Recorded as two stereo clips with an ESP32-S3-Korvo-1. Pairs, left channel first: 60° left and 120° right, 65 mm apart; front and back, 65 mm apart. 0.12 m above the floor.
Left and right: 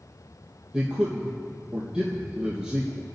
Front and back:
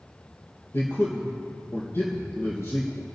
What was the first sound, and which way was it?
A man speaking, 45° right.